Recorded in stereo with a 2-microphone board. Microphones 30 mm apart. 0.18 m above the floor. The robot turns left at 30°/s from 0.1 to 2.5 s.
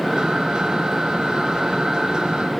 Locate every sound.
Only background noise.